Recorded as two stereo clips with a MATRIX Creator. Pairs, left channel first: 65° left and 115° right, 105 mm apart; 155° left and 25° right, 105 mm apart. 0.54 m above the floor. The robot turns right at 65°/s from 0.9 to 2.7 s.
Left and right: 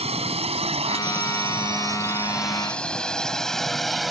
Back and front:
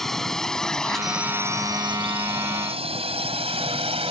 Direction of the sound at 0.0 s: 115° right.